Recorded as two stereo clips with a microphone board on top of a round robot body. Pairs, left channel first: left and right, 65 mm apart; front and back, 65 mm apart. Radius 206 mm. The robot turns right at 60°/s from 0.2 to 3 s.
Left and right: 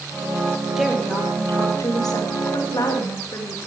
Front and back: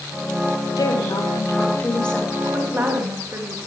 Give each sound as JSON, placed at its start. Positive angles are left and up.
{"t": 0.8, "sound": "a woman speaking", "azimuth_deg": -5, "distance_m": 2.5}